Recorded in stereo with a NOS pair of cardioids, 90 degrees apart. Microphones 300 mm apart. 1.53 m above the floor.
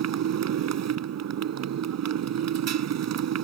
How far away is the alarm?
I don't hear an alarm.